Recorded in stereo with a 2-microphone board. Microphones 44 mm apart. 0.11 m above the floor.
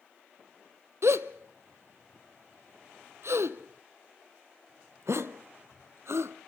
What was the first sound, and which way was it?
A gasp, 75° right (ahead or behind).